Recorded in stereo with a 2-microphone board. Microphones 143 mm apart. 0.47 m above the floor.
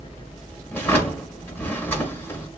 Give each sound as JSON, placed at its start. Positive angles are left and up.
{"t": 0.7, "sound": "a drawer", "side_deg": 15, "distance_m": 0.7}